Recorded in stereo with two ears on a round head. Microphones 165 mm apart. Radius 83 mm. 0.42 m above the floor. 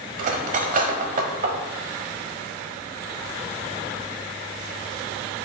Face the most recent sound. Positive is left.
turn(degrees=-45)  # may be behind; listen again after turning